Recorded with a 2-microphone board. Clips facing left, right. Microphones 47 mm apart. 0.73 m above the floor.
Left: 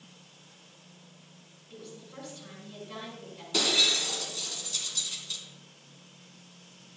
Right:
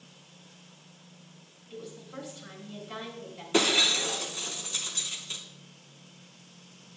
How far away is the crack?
No crack in this recording.